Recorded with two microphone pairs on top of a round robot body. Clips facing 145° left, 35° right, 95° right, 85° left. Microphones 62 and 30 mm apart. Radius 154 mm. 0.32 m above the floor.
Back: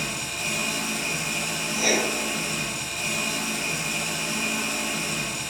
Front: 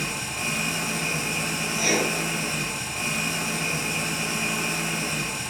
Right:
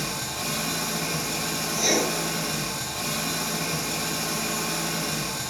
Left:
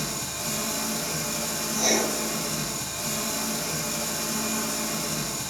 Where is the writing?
155° right, 1.4 m.